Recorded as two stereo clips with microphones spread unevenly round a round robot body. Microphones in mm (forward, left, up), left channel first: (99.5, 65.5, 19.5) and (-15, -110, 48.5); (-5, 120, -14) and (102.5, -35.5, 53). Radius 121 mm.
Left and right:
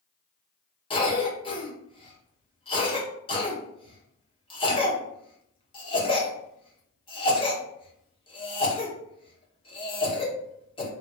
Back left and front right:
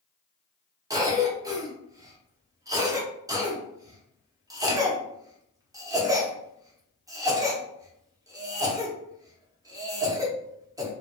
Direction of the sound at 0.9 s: 35° left.